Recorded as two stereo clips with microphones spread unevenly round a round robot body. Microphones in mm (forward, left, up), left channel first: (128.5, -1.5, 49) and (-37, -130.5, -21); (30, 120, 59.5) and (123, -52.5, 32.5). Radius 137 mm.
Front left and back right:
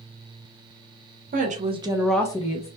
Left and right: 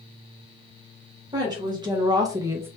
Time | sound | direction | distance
1.3 | a woman speaking | 125° right | 0.8 m